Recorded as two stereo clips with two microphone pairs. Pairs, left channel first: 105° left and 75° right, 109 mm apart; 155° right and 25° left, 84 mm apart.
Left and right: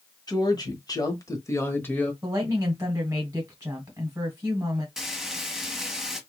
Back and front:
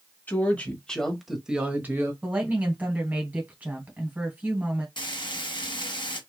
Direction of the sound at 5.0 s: 160° right.